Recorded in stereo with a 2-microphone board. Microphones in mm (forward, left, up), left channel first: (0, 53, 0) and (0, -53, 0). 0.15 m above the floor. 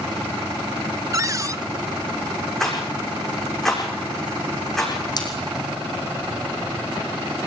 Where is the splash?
40° left (ahead or behind), 5.5 m.